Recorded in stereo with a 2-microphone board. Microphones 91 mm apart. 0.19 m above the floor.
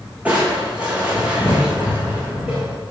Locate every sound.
0.2 s crushing: 15° right (ahead or behind), 4.5 m